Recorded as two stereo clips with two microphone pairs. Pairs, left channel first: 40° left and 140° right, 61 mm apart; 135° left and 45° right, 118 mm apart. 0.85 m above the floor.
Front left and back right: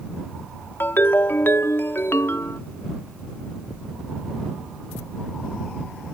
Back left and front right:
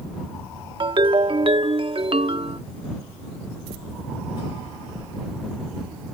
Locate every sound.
0.8 s a ringtone: 5° right